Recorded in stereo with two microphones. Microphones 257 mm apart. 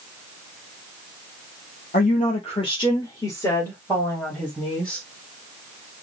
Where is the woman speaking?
35° left (ahead or behind), 0.8 m; by 5.0 s centre (ahead or behind), 2 m.